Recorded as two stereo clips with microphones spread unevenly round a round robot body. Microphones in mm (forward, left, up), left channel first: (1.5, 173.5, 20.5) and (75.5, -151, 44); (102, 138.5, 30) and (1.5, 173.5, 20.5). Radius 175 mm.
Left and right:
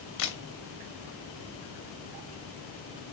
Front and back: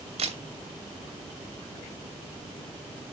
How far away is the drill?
I don't hear a drill.